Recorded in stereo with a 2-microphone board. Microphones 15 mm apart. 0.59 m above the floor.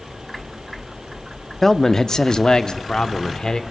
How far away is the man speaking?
About 0.6 m.